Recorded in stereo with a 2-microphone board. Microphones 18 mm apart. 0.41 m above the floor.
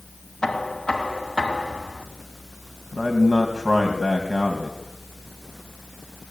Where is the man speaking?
15° right (ahead or behind), 3 m.